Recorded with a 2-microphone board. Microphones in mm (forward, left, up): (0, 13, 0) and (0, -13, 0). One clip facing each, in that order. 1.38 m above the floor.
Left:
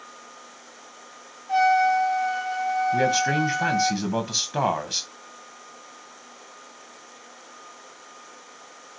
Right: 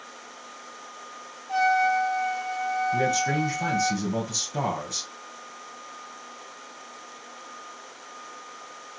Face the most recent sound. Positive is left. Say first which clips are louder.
# left 3 dB
turn(degrees=50)  # may be behind; listen again after turning